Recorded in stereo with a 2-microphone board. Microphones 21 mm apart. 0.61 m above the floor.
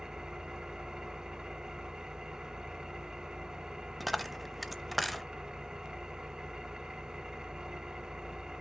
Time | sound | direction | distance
0.0 | an engine running | 30° right (ahead or behind) | 0.9 m
4.0 | a dropped coin | centre (ahead or behind) | 0.6 m